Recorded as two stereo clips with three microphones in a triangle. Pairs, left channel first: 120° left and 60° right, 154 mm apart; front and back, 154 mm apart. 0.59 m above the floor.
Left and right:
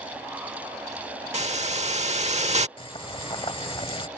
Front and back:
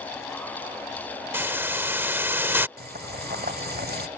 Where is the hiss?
105° right.